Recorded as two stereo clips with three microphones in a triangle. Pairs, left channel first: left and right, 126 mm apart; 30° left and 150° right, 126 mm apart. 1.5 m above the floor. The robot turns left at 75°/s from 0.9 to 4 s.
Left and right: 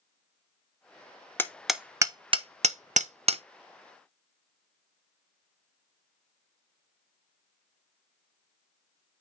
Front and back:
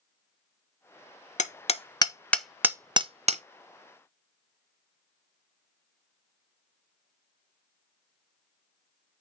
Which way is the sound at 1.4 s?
20° left.